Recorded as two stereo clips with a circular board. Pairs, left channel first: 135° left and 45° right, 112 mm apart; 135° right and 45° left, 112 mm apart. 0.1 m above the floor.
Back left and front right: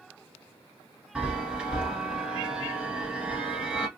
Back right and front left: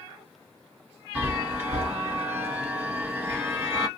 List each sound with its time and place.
1.1 s a chime: 20° left, 1.2 m